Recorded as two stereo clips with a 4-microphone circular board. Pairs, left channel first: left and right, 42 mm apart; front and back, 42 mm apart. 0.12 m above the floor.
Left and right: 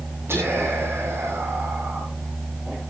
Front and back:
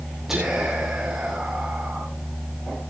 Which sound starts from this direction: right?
Whispering, at 0.3 s.